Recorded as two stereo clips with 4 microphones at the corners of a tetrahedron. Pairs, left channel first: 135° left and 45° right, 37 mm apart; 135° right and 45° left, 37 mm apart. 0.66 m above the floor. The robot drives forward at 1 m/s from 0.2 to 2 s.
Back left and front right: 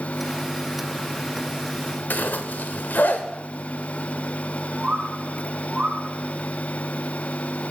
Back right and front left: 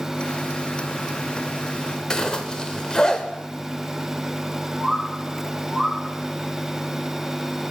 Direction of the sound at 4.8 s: 45° right.